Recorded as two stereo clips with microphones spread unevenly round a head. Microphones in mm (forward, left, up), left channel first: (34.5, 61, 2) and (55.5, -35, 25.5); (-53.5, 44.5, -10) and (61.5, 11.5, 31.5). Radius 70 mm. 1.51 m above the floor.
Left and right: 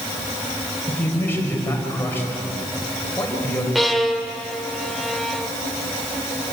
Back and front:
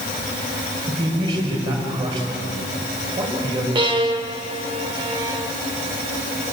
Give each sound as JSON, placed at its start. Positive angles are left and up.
{"t": 0.9, "sound": "a man speaking", "azimuth_deg": 30, "distance_m": 6.5}
{"t": 3.8, "sound": "a violin", "azimuth_deg": 0, "distance_m": 1.8}